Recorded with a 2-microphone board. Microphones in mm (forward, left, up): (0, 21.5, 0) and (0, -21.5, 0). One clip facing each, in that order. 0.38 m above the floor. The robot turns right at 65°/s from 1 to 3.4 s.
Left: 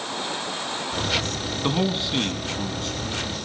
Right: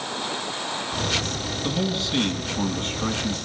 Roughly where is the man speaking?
Behind left.